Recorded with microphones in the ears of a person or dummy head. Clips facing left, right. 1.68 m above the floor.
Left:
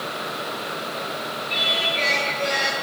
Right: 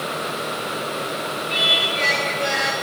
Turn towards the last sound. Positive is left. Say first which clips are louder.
# right 2 dB
turn(degrees=-5)  # may be behind; listen again after turning